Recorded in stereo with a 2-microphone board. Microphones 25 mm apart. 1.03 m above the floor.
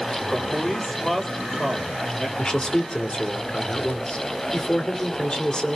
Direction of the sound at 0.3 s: 15° left (ahead or behind).